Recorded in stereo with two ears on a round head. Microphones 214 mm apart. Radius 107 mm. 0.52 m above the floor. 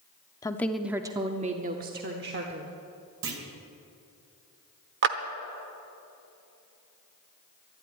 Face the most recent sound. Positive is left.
turn(degrees=-45)  # may be behind; listen again after turning